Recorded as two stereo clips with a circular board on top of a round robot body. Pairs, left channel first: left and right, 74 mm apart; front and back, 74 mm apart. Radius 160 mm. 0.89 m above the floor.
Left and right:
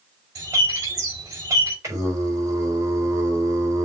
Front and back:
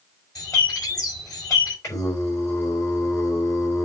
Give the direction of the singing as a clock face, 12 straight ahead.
1 o'clock.